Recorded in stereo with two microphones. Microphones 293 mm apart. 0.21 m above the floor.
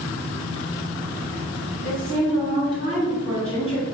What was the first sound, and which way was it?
A woman speaking, 5° right (ahead or behind).